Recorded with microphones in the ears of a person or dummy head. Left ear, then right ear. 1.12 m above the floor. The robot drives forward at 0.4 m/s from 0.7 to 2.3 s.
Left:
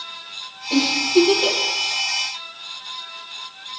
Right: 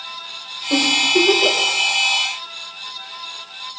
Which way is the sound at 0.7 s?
70° right (ahead or behind).